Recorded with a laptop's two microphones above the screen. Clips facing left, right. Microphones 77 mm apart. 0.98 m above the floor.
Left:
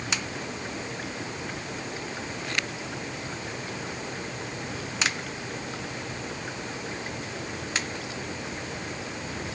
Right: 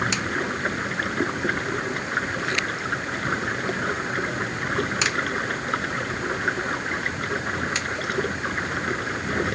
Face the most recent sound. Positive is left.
turn(degrees=-65)  # may be behind; listen again after turning